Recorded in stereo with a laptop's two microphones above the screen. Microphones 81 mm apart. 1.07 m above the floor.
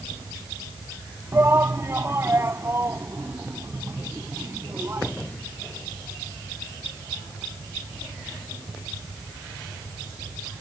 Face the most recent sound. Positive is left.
turn(degrees=-35)  # may be behind; listen again after turning